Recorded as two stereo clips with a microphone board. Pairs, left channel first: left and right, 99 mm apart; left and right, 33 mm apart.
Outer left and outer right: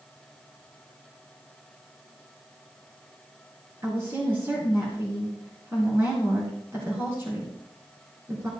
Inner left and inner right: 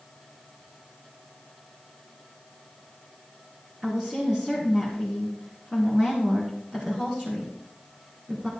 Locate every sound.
3.8 s a woman speaking: 25° right (ahead or behind), 3 m